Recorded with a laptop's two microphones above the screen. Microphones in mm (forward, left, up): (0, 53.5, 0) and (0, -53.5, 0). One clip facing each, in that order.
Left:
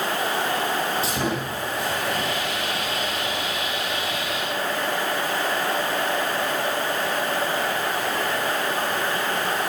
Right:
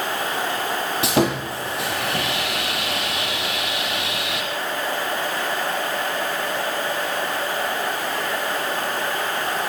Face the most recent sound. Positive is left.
turn(degrees=-75)  # may be behind; listen again after turning